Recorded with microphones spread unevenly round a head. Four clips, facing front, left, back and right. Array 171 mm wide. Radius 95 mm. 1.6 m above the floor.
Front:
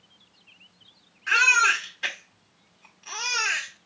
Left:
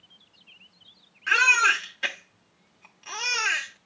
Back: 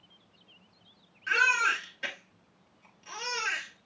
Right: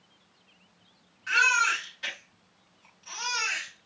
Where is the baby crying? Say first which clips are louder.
Left 2 dB, front 5 dB; 110° left, 1.6 m.